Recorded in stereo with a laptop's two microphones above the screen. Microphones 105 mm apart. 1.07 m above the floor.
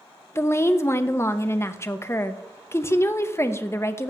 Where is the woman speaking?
25° left (ahead or behind), 0.6 m.